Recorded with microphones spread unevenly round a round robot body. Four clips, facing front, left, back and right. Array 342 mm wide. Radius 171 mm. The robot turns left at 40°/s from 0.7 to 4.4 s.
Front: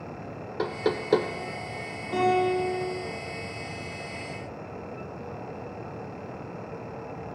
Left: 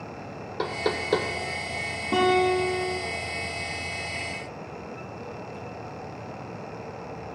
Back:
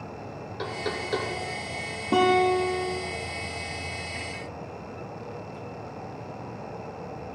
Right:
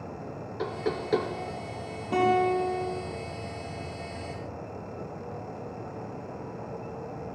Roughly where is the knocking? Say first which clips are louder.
Left 3 dB, front 5 dB; ahead left.